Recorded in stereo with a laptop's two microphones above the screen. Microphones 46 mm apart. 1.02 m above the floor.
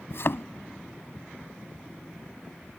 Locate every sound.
0.1 s a thud: 60° left (ahead or behind)